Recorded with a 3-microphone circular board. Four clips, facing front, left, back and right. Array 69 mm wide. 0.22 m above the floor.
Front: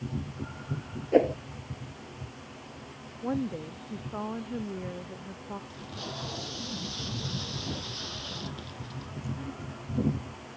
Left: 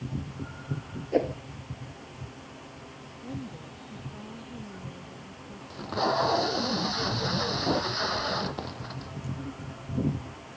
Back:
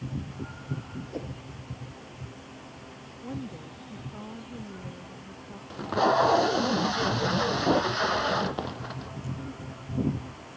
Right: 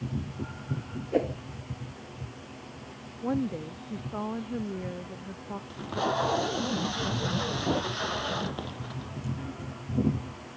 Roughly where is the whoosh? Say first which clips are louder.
Left 1 dB, front 17 dB; ahead.